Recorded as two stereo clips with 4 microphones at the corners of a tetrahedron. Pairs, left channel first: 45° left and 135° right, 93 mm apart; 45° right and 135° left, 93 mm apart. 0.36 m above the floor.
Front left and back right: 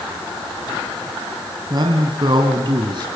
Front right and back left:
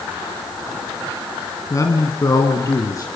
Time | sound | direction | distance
1.7 | a man speaking | 95° right | 2.5 m